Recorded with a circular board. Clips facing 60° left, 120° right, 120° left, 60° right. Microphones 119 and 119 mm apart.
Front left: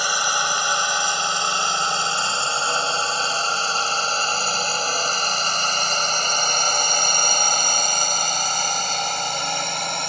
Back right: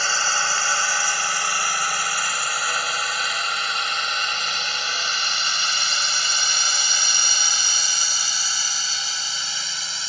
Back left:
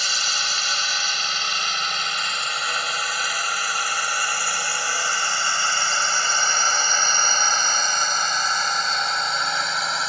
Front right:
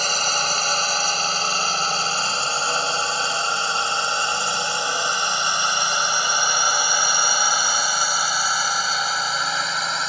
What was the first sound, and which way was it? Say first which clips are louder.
A drone: front left 2 dB, front right 6 dB; 15° right.